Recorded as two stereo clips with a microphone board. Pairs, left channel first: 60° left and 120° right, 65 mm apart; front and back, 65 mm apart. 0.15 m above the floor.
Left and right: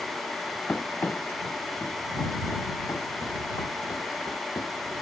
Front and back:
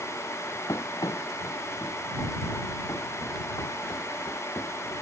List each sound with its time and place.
0.7 s running footsteps: 5° right; by 4.9 s 35° left